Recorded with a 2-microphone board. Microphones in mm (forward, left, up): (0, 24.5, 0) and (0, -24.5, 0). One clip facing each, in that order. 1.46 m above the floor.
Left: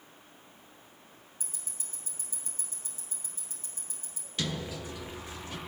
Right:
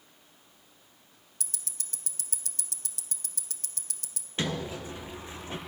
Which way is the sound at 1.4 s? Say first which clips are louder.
Right 5 dB; 80° right.